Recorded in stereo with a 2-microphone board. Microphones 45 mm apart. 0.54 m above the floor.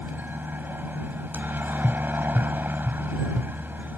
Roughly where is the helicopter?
Right.